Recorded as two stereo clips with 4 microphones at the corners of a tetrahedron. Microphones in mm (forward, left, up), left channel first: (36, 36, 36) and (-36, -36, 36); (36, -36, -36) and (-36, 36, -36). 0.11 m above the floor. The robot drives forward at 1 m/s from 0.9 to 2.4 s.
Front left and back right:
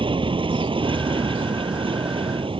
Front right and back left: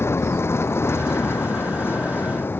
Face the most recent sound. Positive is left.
turn(degrees=-110)